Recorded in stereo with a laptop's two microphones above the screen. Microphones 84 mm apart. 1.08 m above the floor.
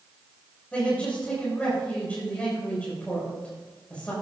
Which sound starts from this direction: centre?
A man speaking, at 0.7 s.